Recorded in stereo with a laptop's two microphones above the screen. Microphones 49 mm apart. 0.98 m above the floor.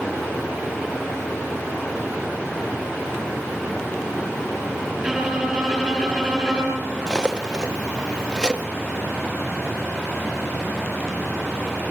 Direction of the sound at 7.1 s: 15° right (ahead or behind).